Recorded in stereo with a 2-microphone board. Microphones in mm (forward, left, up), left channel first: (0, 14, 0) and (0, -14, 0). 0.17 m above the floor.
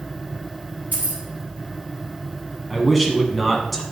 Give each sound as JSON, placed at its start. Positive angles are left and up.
{"t": 0.9, "sound": "keys jangling", "side_deg": -70, "distance_m": 2.5}
{"t": 2.7, "sound": "a man speaking", "side_deg": 0, "distance_m": 1.3}